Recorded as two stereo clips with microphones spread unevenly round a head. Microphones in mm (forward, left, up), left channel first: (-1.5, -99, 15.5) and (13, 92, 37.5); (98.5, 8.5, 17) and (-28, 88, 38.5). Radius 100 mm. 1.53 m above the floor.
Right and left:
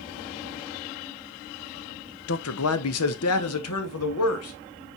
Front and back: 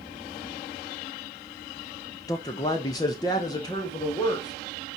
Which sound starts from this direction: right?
A man speaking, at 2.3 s.